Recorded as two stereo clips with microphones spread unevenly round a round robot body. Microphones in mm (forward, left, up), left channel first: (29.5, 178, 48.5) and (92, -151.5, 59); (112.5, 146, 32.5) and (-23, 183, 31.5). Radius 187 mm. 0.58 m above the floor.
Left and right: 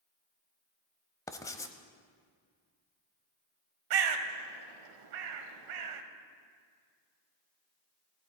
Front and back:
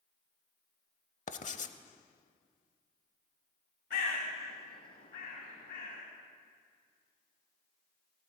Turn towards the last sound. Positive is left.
turn(degrees=-65)